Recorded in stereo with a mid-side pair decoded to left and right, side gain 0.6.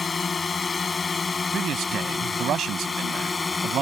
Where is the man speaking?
50° right.